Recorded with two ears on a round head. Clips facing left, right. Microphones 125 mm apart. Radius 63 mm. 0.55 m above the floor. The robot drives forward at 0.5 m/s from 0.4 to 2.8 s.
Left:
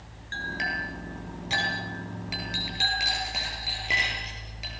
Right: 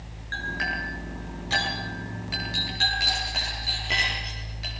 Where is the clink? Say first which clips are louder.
Right 1 dB; 25° left (ahead or behind), 5.5 m; by 4.7 s 20° left (ahead or behind), 7 m.